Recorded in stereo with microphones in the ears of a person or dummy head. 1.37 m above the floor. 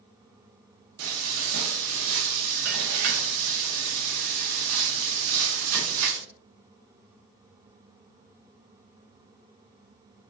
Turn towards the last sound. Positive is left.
turn(degrees=-75)  # may be behind; listen again after turning